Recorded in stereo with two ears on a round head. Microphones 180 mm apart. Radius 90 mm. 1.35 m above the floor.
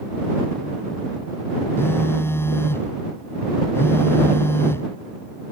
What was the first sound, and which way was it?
A phone buzzing, 10° left (ahead or behind).